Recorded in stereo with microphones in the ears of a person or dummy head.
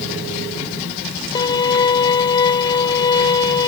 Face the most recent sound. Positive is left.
turn(degrees=20)  # may be behind; listen again after turning